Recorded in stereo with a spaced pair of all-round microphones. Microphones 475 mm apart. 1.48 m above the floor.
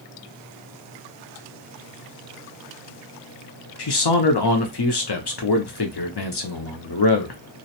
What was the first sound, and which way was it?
A man speaking, 55° left (ahead or behind).